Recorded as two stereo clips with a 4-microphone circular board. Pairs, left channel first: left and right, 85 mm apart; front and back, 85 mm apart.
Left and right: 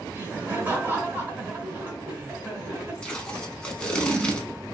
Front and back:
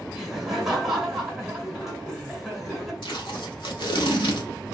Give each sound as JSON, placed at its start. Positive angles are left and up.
{"t": 0.1, "sound": "laughter", "azimuth_deg": -100, "distance_m": 1.0}
{"t": 3.0, "sound": "tape being pulled", "azimuth_deg": 15, "distance_m": 0.7}